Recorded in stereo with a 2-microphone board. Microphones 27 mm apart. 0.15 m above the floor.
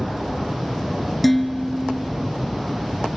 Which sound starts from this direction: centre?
Dishes clattering, at 1.2 s.